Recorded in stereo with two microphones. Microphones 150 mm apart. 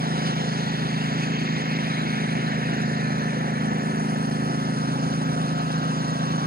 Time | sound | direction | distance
0.0 | a lawn mower | 80° right | ?